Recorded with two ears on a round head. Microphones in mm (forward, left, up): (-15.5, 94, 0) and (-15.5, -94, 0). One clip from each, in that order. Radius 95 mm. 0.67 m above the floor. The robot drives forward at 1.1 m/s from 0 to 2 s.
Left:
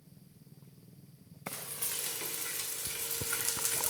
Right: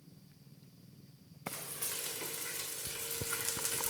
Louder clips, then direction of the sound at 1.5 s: Left 1 dB; 5° left (ahead or behind).